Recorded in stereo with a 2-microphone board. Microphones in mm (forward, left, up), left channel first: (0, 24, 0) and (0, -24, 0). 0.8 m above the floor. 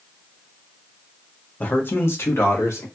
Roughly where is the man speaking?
Left.